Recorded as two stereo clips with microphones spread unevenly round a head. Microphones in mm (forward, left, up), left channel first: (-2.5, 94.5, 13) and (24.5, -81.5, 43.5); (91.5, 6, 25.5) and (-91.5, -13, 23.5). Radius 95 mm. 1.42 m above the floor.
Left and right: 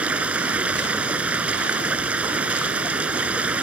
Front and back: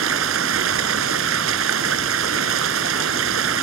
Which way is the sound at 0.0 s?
165° right.